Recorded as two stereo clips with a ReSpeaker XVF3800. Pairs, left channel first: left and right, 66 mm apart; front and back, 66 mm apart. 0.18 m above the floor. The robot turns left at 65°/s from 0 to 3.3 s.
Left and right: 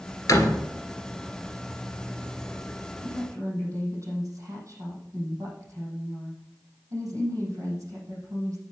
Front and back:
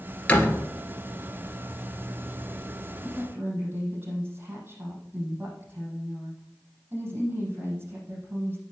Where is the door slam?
70° left, 2.0 m; by 0.7 s 45° left, 2.0 m.